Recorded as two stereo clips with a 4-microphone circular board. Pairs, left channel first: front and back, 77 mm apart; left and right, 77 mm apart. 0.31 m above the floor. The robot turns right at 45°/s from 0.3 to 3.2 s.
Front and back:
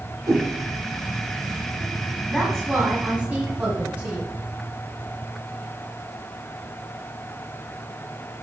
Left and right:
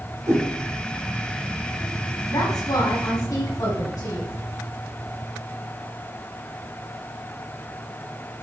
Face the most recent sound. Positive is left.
turn(degrees=115)